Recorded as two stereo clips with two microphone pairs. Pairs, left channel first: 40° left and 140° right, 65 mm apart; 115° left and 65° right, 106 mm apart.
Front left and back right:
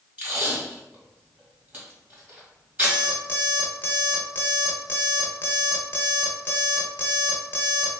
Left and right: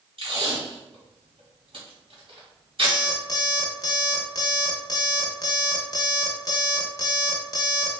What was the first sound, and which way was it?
Tape being pulled, 80° right.